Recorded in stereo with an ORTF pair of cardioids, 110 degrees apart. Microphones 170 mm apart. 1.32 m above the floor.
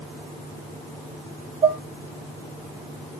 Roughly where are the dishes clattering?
Ahead right.